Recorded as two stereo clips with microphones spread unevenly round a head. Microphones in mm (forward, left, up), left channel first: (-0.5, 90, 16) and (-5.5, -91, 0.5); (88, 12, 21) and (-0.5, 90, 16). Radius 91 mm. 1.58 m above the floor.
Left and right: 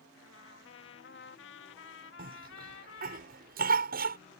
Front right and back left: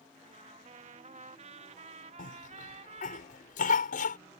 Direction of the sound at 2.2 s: 50° right.